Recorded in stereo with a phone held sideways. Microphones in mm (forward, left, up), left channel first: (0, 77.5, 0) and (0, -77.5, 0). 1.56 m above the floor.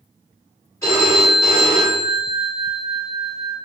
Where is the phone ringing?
15° left (ahead or behind), 1.7 m.